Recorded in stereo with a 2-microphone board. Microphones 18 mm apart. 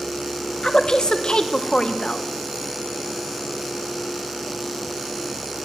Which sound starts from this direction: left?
A woman speaking, at 0.6 s.